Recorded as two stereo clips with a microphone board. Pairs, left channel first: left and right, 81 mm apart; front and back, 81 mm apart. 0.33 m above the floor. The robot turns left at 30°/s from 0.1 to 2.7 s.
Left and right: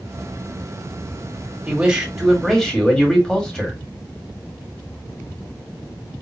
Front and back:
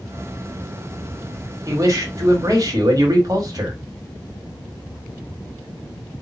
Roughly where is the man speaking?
Behind right.